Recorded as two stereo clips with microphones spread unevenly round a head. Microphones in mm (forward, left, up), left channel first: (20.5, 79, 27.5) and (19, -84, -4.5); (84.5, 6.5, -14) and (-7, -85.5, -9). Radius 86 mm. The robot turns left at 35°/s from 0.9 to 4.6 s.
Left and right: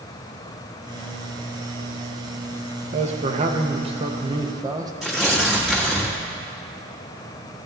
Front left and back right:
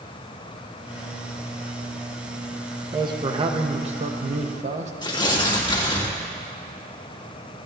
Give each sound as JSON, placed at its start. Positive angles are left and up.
{"t": 2.9, "sound": "a man speaking", "azimuth_deg": -85, "distance_m": 1.0}
{"t": 5.0, "sound": "tearing paper", "azimuth_deg": -5, "distance_m": 2.0}